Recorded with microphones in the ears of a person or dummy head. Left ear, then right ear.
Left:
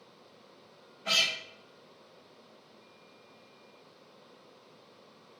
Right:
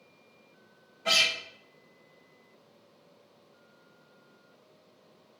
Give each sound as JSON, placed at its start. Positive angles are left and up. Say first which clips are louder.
{"t": 1.1, "sound": "a guitar", "louder": "right 3 dB", "side_deg": -20, "distance_m": 0.9}